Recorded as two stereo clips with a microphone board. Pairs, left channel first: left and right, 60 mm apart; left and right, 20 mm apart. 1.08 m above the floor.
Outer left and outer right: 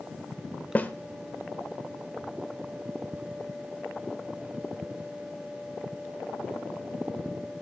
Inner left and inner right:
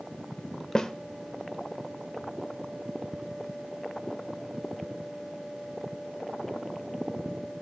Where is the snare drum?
25° left (ahead or behind), 1.0 m.